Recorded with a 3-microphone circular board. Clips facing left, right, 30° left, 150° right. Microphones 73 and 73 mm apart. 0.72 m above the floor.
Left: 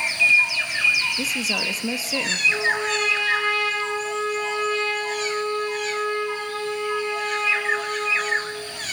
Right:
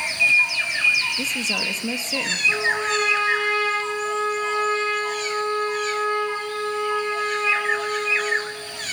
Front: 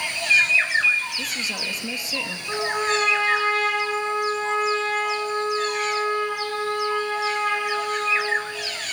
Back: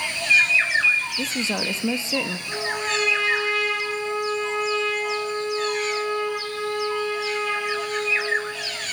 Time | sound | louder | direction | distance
1.2 | a woman speaking | even, back 4 dB | 170° left | 0.9 m
2.5 | a trumpet | right 1 dB, front 6 dB | 30° right | 7.5 m